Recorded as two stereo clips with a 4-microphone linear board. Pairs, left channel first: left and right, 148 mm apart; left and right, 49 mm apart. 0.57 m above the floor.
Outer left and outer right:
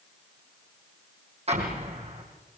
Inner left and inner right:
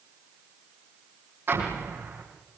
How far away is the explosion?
About 5.5 m.